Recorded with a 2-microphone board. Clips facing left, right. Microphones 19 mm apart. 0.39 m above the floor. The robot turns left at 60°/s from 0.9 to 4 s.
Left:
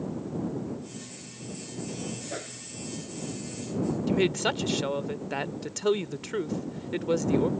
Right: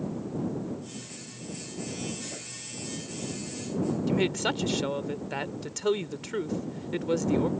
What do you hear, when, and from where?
2.3 s a whoosh: 35° left (ahead or behind); by 2.6 s 55° left (ahead or behind)
4.1 s a woman speaking: centre (ahead or behind)